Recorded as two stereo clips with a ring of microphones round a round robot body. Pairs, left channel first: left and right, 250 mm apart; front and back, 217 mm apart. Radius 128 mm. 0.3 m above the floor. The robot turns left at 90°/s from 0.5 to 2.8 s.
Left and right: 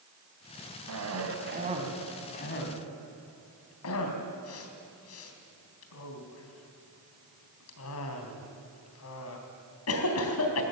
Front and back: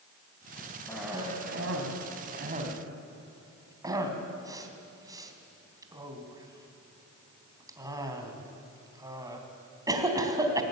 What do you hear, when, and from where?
0.9 s a cough: 80° right, 3 m; by 10.6 s 105° left, 3 m